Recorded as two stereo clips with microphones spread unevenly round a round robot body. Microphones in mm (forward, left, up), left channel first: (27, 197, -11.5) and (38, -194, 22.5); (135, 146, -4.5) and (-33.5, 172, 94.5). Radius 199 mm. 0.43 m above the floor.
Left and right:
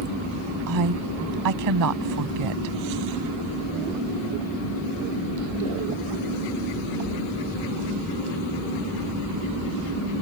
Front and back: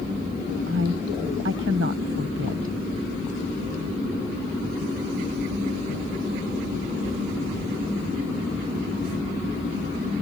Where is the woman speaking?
135° right.